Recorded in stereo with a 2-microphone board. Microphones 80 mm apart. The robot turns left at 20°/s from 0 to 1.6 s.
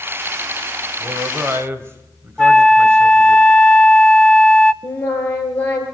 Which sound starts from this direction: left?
Singing, at 4.8 s.